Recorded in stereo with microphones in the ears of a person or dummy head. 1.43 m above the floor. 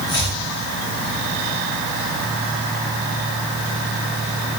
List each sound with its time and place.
0.1 s chopping: 25° left (ahead or behind), 8 m